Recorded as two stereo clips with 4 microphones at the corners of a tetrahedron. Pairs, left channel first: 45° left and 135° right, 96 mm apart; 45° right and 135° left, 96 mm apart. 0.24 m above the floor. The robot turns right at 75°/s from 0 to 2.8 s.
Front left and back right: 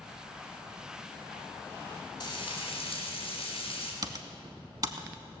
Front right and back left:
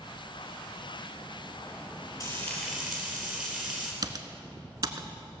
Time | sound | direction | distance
2.2 | frying | straight ahead | 3.5 m
4.0 | typing on a keyboard | straight behind | 0.7 m